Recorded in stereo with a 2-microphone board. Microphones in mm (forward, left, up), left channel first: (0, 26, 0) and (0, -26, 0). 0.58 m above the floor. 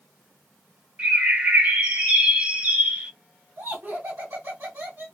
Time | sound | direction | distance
1.0 | a bird | 30° right (ahead or behind) | 0.8 m
3.6 | laughter | 55° right (ahead or behind) | 1.4 m